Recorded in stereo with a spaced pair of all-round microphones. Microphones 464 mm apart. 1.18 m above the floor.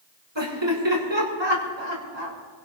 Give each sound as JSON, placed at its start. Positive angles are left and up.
{"t": 0.3, "sound": "laughter", "side_deg": -65, "distance_m": 6.5}